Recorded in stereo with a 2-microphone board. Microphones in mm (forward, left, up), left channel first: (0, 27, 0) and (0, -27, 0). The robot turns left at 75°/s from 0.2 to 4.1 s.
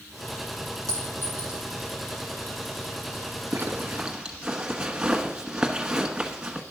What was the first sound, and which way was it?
A clink, 60° right (ahead or behind).